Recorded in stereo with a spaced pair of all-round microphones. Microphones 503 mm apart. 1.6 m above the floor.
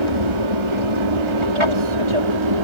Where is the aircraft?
70° right (ahead or behind); by 2.6 s 65° right (ahead or behind).